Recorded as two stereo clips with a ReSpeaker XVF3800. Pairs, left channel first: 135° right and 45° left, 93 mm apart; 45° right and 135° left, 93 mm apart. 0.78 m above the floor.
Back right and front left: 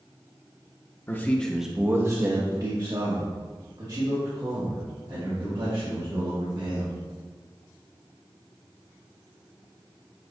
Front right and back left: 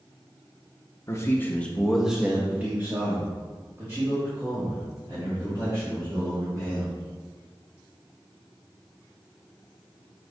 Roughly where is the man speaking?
Right.